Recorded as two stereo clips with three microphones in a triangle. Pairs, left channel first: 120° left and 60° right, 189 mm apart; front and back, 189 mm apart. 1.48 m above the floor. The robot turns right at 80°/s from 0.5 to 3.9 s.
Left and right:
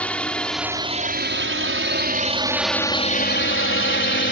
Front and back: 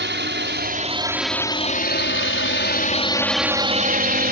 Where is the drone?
155° right; by 4.3 s 140° left.